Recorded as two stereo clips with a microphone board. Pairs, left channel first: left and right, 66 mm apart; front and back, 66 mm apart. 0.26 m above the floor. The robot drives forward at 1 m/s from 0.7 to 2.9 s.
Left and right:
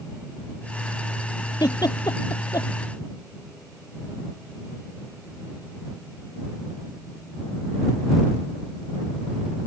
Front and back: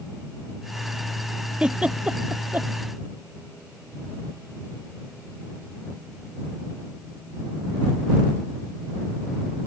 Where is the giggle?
105° left; by 2.7 s 115° left.